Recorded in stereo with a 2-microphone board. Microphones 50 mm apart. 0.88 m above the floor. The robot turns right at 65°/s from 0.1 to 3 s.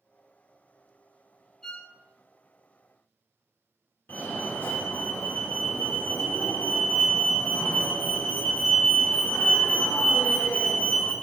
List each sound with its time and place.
1.6 s a violin: 10° left (ahead or behind), 1.6 m; by 1.9 s 30° left (ahead or behind), 1.6 m
4.1 s a fire alarm: 50° left (ahead or behind), 2 m